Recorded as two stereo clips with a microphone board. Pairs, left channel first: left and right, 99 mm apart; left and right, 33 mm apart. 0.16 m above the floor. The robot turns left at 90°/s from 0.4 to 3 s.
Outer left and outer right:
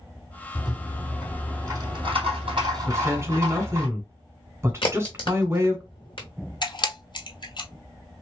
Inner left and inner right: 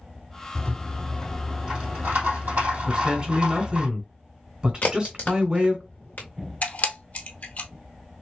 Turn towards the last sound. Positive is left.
turn(degrees=55)  # may be behind; listen again after turning